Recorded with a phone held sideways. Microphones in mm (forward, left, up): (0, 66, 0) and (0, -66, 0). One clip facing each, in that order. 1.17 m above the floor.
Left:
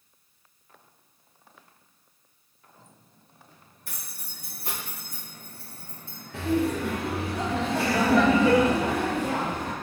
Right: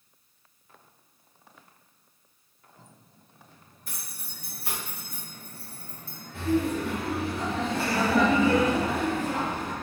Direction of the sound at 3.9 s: 65° left (ahead or behind).